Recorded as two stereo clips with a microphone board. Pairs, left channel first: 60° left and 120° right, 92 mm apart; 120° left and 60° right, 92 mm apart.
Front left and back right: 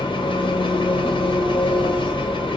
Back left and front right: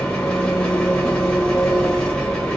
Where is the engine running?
40° left, 1.2 m.